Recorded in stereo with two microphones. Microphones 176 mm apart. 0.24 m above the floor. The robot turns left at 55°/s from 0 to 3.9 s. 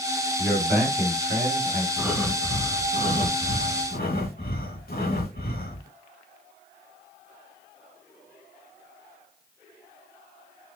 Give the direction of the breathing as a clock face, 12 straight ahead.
6 o'clock.